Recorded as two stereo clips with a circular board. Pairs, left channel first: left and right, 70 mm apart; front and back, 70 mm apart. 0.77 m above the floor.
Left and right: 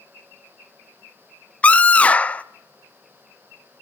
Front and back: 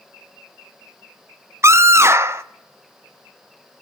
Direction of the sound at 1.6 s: 150° left.